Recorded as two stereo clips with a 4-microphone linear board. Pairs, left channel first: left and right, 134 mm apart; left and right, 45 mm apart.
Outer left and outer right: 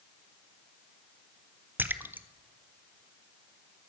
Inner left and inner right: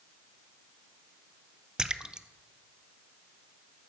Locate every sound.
1.8 s a splash: 15° right (ahead or behind), 0.5 m